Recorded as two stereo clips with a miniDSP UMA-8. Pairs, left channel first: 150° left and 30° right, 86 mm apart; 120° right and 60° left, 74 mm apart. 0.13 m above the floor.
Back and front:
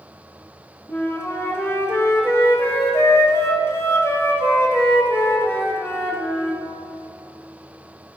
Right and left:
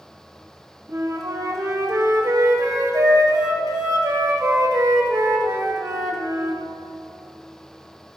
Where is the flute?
95° left, 2.5 m.